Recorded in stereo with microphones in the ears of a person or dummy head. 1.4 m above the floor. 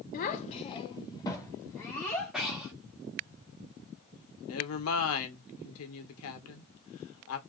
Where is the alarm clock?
I don't hear an alarm clock.